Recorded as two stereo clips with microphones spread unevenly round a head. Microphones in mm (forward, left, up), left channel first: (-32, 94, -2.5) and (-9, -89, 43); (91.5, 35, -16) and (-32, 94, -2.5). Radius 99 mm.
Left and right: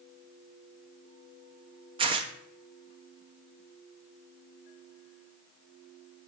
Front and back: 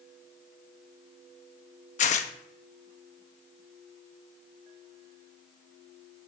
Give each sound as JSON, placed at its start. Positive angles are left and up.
{"t": 2.0, "sound": "tearing paper", "azimuth_deg": -40, "distance_m": 0.8}